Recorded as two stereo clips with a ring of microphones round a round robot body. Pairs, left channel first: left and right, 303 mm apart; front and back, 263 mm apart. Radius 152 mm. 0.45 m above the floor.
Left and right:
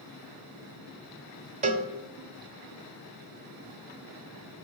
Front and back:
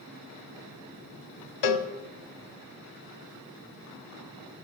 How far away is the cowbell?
About 1.1 m.